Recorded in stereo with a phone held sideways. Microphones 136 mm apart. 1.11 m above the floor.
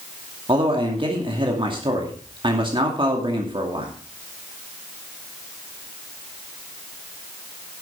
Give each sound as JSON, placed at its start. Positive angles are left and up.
{"t": 0.5, "sound": "a man speaking", "side_deg": -40, "distance_m": 2.0}